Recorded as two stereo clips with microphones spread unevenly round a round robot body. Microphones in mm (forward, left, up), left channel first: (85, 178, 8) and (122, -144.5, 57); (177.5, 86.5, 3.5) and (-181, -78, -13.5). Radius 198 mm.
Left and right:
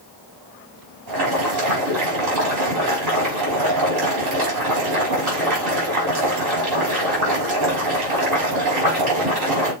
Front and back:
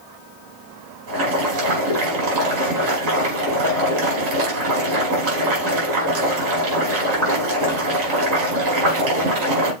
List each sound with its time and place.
1.1 s boiling: 115° right, 5 m